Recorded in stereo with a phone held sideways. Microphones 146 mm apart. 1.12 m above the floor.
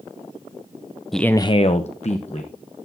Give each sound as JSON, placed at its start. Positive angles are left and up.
{"t": 1.1, "sound": "a man speaking", "side_deg": 0, "distance_m": 0.6}